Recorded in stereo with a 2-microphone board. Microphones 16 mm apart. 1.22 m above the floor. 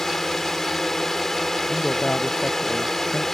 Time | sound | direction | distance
0.0 | a drone | 30° left (ahead or behind) | ?
1.7 | a man speaking | 85° left | ?